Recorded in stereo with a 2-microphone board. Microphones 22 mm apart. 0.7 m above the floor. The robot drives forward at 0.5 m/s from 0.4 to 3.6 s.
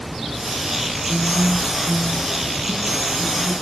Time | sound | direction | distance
1.1 | a guitar | 65° right (ahead or behind) | 9 m